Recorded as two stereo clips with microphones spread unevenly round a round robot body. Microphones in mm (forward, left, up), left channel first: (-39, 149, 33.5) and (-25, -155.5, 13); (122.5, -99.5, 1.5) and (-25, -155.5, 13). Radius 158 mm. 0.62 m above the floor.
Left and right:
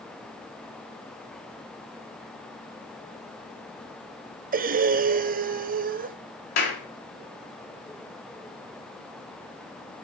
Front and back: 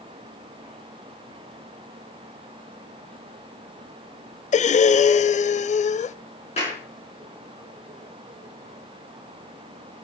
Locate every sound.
4.5 s breathing: 25° right, 0.6 m
6.6 s a clap: 90° left, 5.5 m